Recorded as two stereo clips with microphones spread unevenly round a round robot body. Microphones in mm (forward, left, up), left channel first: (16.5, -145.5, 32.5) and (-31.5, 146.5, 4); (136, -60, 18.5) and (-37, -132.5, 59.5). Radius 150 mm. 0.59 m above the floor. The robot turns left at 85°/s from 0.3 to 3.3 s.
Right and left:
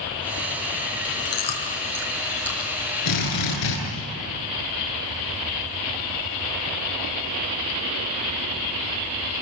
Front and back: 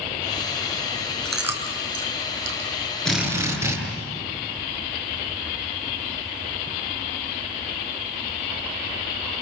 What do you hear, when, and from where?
1.2 s chewing: 60° right, 5 m; by 2.7 s 175° left, 5 m
3.0 s a drill: 60° right, 9.5 m; by 3.8 s 85° right, 9.5 m